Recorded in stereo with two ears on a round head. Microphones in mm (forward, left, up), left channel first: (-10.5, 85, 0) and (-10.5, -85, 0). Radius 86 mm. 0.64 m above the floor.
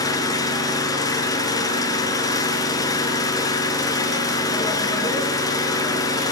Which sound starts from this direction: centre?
An engine running, at 0.0 s.